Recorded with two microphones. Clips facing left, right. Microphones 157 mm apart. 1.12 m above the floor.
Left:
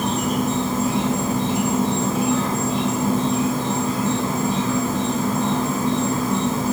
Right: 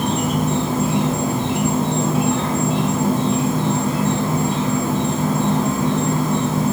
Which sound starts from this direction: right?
An insect, at 0.0 s.